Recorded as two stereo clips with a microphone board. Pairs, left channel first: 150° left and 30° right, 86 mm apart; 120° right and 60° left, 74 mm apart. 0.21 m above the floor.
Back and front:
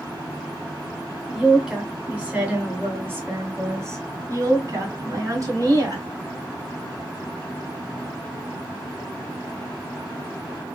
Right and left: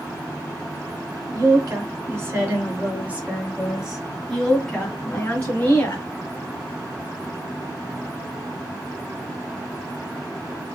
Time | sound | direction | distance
1.3 | a woman speaking | 50° left | 2.0 m